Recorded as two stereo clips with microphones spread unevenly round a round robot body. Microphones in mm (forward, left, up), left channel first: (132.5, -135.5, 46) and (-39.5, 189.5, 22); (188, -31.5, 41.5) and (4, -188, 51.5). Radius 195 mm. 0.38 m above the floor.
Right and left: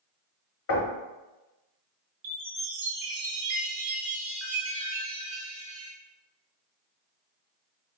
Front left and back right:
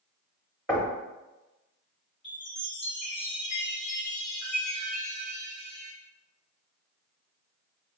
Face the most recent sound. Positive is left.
turn(degrees=115)